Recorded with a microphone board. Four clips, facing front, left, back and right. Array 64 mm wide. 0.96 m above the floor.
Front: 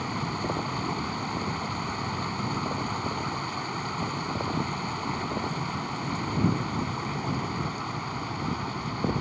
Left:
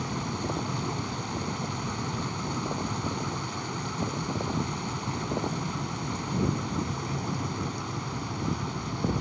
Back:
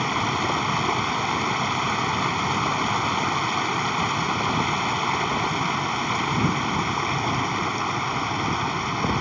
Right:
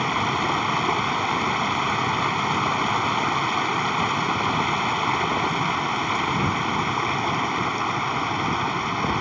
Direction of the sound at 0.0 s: 120° right.